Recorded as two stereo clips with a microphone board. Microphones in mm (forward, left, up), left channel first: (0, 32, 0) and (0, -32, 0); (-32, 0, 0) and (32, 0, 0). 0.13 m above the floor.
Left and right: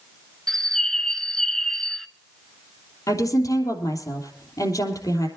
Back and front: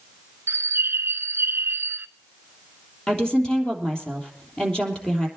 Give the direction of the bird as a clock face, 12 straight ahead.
12 o'clock.